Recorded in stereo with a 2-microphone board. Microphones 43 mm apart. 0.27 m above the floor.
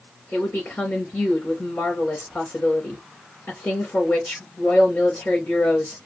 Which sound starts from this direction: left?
A woman speaking, at 0.3 s.